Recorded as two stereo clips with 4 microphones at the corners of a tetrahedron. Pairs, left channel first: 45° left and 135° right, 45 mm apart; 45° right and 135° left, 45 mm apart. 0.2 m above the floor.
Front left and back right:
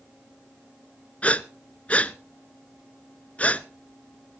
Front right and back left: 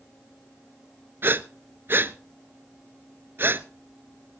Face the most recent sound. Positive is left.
turn(degrees=100)